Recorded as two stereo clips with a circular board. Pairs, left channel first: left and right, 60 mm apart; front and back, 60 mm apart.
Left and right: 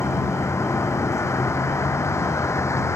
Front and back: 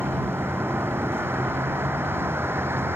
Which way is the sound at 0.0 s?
130° left.